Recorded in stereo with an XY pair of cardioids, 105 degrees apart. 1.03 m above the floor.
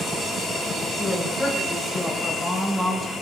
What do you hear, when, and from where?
1.0 s a woman speaking: 20° left, 5 m; by 3.1 s straight ahead, 5.5 m